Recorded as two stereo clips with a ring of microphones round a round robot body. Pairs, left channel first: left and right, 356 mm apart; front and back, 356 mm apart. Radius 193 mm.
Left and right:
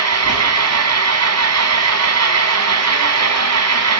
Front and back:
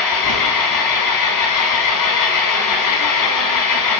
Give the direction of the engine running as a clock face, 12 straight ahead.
1 o'clock.